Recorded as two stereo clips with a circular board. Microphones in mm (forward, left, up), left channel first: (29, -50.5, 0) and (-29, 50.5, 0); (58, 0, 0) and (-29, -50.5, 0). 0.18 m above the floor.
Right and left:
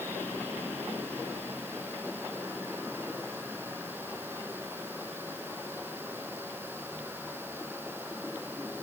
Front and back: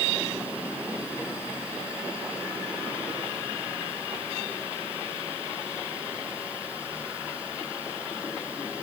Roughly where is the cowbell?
I don't hear a cowbell.